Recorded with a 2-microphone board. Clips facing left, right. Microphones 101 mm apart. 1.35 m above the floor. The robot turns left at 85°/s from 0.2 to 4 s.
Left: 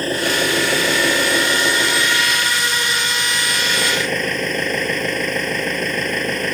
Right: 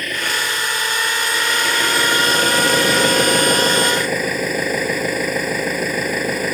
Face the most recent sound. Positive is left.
turn(degrees=-175)